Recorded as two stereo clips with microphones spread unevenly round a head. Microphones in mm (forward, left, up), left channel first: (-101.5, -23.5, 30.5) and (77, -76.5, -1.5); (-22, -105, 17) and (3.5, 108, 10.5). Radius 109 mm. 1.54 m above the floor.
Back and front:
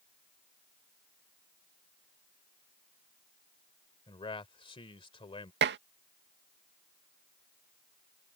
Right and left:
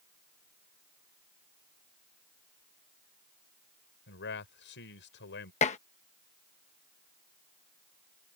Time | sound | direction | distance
4.1 | a man speaking | 135° right | ?
5.6 | dishes clattering | 40° right | ?